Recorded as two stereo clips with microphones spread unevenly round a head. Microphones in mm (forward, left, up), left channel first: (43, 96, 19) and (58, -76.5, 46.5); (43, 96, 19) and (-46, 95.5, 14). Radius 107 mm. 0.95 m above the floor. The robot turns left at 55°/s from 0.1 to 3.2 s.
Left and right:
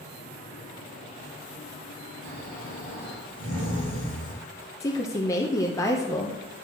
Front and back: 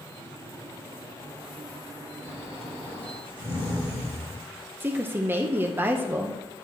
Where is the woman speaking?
140° left, 0.7 m.